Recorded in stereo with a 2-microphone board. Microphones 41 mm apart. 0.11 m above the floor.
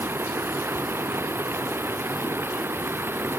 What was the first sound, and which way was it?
Running water, 75° right (ahead or behind).